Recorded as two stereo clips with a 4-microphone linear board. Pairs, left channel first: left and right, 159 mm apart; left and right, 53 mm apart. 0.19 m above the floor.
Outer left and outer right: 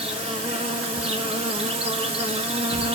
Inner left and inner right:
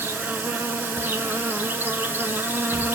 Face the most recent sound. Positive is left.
turn(degrees=-40)  # may be behind; listen again after turning